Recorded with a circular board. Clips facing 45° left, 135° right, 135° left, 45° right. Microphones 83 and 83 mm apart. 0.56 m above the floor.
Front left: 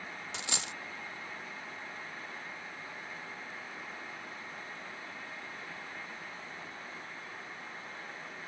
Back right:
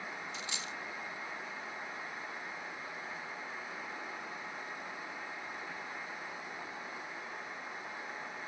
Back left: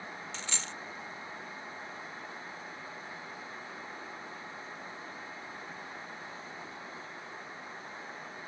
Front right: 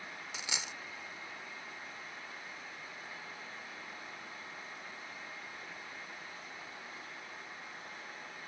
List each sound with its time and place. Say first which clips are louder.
0.3 s a dropped coin: front left 2 dB, front right 1 dB; 35° left